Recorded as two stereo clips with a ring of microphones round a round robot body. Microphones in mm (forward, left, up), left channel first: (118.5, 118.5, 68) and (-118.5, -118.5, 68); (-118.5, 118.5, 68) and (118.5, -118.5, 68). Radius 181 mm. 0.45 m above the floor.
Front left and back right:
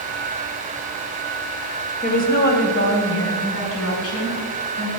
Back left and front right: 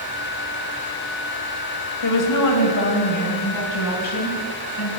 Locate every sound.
2.0 s a woman speaking: 110° left, 2.5 m; by 4.9 s 90° left, 6 m